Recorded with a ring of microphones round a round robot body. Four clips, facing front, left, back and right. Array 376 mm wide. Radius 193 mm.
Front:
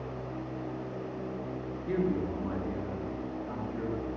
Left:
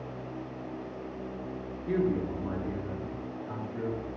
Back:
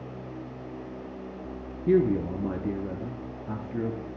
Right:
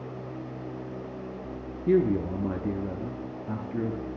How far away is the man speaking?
About 1.1 m.